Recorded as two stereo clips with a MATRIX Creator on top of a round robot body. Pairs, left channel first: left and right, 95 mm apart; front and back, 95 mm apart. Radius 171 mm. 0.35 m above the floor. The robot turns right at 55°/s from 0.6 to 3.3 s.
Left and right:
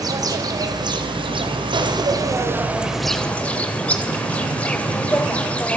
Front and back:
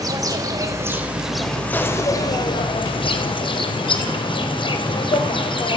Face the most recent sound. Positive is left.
turn(degrees=15)